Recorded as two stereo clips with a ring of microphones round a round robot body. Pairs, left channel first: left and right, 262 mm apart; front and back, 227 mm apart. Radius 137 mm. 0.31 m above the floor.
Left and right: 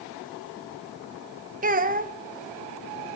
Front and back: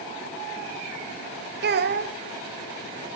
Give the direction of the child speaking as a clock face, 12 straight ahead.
5 o'clock.